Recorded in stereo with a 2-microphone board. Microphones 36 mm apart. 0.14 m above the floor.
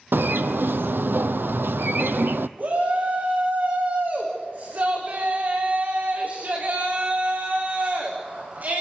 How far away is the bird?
About 0.8 m.